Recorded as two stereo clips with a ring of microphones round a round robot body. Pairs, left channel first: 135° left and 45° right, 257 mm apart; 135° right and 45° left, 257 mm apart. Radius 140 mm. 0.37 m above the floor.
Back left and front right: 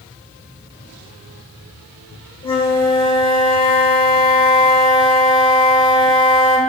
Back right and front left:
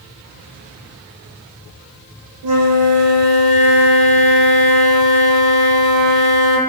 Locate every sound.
2.4 s a flute: 65° left, 0.7 m